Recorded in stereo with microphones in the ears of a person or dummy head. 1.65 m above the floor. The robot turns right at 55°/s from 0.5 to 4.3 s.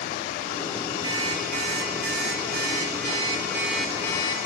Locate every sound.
1.0 s an alarm clock: 150° right, 3 m; by 4.4 s 30° left, 3 m